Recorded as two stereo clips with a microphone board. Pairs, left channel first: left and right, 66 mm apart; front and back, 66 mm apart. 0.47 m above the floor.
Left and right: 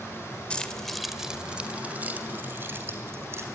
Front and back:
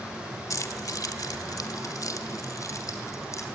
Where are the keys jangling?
20° left, 1.3 m; by 3.5 s 40° right, 3 m.